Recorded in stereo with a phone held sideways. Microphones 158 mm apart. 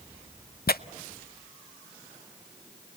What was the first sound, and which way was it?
Tearing paper, 80° left.